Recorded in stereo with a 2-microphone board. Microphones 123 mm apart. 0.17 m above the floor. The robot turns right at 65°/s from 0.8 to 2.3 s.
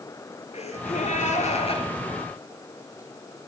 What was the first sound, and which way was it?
A gasp, 65° left.